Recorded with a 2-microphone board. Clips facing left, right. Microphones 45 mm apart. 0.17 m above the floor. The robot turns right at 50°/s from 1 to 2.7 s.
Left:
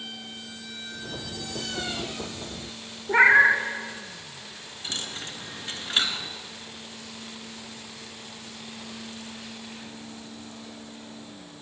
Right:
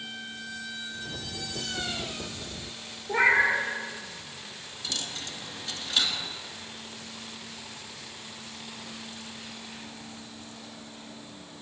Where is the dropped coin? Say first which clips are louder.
Left 1 dB; 30° left (ahead or behind), 0.6 m.